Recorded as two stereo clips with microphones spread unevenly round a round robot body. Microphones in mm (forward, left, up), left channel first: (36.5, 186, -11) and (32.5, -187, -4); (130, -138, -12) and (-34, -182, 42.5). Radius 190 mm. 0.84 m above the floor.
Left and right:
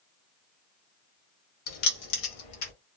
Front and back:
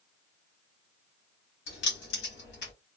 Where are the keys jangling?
40° left, 1.2 m; by 2.7 s 55° left, 1.8 m.